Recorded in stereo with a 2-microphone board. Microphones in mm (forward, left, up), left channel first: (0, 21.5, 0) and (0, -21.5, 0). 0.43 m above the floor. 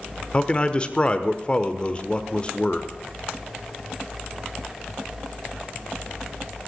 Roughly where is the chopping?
I don't hear chopping.